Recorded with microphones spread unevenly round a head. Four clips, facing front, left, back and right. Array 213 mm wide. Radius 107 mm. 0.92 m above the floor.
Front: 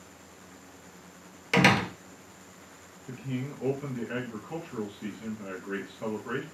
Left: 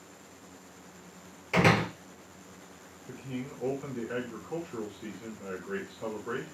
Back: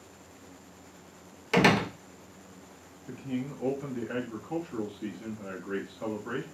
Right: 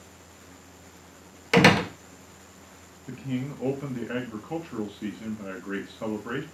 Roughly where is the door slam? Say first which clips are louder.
Right 6 dB, even; right.